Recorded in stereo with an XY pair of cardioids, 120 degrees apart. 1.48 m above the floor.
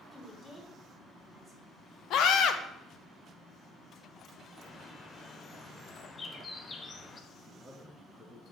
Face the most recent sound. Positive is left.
turn(degrees=5)